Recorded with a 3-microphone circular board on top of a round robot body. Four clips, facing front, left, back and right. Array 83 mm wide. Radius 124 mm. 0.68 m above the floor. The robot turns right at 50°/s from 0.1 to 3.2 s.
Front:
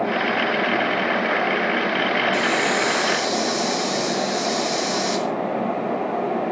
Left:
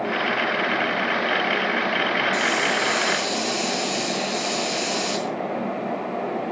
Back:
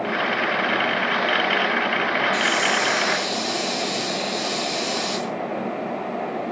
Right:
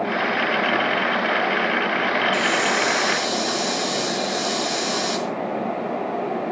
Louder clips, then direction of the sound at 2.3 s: Right 2 dB, front 1 dB; 115° right.